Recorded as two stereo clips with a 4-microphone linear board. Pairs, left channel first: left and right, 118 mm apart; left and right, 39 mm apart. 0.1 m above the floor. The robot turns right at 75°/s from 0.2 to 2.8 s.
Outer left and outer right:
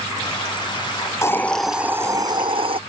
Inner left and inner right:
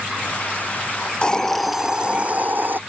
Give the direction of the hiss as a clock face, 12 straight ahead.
7 o'clock.